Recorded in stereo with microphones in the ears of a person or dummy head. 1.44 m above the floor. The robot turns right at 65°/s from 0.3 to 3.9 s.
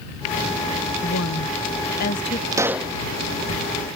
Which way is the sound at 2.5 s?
20° right (ahead or behind).